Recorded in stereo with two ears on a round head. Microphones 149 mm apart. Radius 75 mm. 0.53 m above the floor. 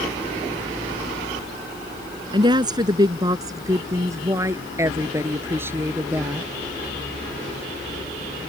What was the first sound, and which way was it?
A woman speaking, 25° right (ahead or behind).